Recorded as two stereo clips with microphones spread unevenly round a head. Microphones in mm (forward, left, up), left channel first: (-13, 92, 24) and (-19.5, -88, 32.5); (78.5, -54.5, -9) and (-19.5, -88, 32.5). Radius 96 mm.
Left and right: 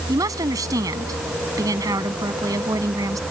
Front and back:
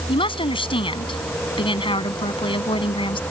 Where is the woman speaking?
20° right.